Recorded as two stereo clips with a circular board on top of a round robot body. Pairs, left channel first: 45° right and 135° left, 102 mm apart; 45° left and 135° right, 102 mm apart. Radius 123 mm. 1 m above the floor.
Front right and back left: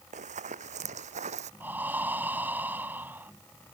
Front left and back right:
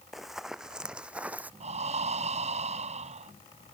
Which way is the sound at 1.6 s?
150° right.